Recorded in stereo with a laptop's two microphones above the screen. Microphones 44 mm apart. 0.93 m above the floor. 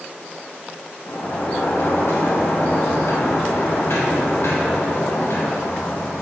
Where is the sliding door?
75° left (ahead or behind), 0.6 m.